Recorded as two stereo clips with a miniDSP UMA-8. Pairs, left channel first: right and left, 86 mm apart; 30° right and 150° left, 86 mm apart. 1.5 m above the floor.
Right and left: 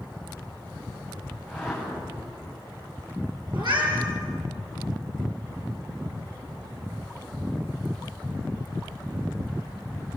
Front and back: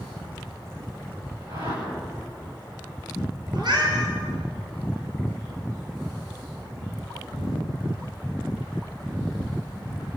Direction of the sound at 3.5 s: 120° left.